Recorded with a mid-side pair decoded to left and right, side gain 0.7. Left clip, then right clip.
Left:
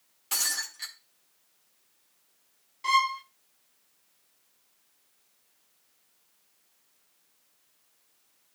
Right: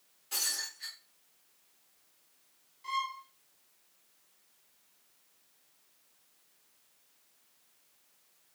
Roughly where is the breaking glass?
Ahead left.